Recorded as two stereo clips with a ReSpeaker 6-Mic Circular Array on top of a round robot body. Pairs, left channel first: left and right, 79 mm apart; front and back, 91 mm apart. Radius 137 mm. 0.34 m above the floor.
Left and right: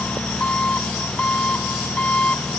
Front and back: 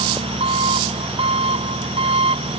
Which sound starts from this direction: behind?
An engine running, at 0.0 s.